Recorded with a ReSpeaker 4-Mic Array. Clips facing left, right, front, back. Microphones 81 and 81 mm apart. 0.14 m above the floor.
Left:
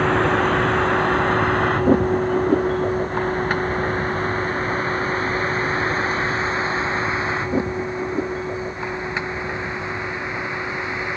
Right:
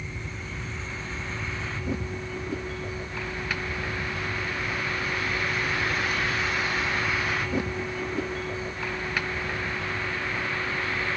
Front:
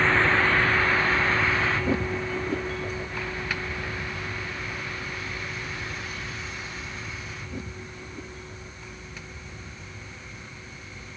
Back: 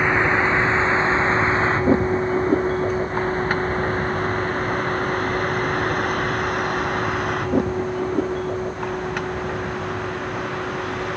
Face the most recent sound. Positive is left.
turn(degrees=160)